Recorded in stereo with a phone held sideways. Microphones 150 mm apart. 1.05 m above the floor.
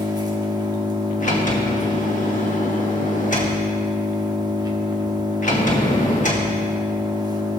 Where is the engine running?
25° right (ahead or behind), 1.0 m.